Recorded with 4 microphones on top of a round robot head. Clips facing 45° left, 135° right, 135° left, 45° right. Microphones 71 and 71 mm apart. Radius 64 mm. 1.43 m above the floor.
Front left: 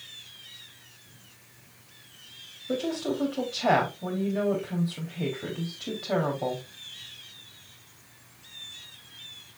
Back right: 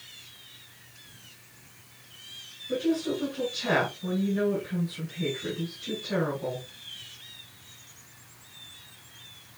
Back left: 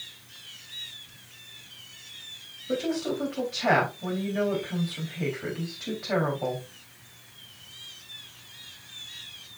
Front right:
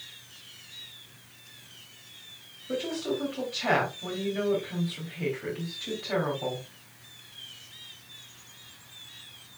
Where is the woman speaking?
60° left, 3.5 m.